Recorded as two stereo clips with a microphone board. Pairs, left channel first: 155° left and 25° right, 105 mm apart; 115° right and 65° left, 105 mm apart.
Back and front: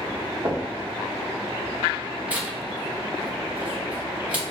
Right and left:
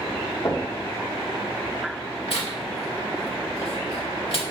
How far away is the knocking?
About 0.9 m.